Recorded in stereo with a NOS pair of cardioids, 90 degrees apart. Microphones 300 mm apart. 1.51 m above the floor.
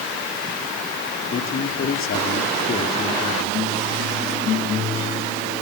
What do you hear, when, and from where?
1.3 s a man speaking: 45° left, 4 m